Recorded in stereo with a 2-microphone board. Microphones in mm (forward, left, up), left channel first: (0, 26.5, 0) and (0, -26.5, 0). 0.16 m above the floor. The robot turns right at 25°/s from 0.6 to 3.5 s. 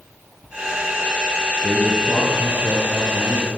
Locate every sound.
1.6 s a man speaking: 170° right, 3 m; by 3.5 s 125° right, 3 m